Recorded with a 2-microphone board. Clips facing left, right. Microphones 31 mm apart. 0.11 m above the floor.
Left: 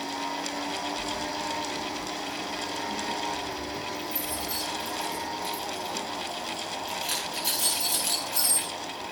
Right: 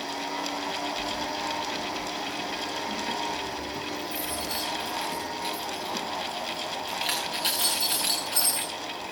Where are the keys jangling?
40° right (ahead or behind), 10 m; by 8.7 s 60° right (ahead or behind), 13 m.